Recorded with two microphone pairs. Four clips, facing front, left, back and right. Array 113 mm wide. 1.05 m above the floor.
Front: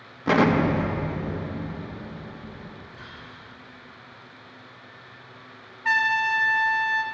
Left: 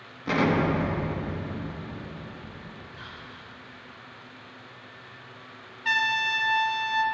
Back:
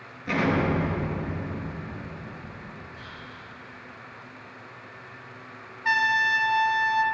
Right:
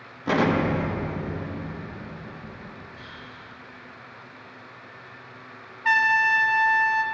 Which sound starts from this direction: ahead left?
Whispering, at 2.9 s.